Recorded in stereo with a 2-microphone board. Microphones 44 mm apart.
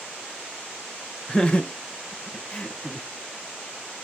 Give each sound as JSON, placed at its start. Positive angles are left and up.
{"t": 1.3, "sound": "laughter", "side_deg": 15, "distance_m": 0.5}